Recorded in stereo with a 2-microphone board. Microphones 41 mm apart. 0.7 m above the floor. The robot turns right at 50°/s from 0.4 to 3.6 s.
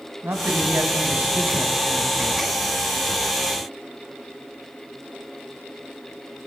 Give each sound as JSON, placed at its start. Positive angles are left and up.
{"t": 0.2, "sound": "a man speaking", "azimuth_deg": -85, "distance_m": 4.5}